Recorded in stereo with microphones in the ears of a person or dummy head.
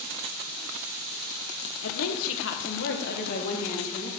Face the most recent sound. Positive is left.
turn(degrees=45)  # may be behind; listen again after turning